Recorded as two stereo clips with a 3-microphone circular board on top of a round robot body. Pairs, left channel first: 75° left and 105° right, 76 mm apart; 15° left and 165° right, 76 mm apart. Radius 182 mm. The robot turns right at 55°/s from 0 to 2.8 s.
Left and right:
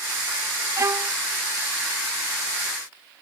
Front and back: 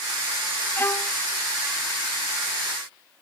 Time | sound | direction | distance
0.8 | a violin | 55° right | ?